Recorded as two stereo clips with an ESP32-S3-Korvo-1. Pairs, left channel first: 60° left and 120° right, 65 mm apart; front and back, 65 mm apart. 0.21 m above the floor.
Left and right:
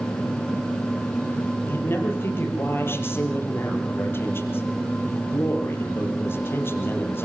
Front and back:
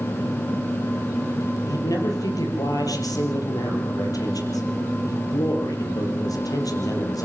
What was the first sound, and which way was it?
A man speaking, 10° left.